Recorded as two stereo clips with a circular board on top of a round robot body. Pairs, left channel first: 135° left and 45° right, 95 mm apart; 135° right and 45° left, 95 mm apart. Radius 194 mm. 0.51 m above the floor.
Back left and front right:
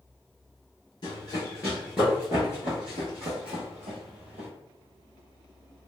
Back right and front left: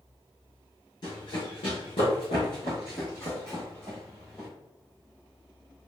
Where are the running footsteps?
Straight behind, 0.8 m; by 4.5 s 45° right, 1.4 m.